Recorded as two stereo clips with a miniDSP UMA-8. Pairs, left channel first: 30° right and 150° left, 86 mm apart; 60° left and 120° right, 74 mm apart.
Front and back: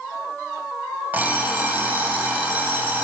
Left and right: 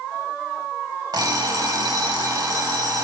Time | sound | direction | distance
1.1 | an alarm clock | 140° right | 1.0 m